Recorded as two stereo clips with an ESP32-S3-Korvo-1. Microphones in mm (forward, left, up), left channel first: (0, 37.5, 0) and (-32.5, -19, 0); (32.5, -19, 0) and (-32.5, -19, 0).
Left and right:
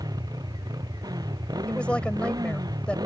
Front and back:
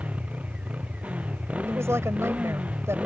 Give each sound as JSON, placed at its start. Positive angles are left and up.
{"t": 0.0, "sound": "a motorcycle", "azimuth_deg": -110}
{"t": 1.7, "sound": "a woman speaking", "azimuth_deg": 135}